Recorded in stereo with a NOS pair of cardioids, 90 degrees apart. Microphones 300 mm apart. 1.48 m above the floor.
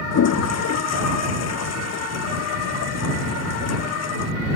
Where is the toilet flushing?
60° left.